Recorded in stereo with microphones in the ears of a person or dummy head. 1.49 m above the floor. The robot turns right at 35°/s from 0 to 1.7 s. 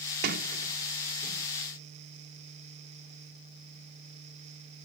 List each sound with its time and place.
0.2 s a sliding door: 60° right (ahead or behind); by 1.5 s 15° right (ahead or behind)